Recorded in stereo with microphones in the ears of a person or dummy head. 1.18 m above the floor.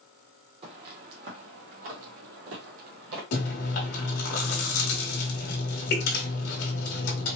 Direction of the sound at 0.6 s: 35° right (ahead or behind).